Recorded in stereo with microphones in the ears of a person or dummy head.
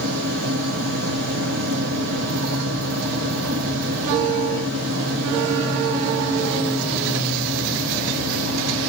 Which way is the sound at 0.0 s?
55° right (ahead or behind).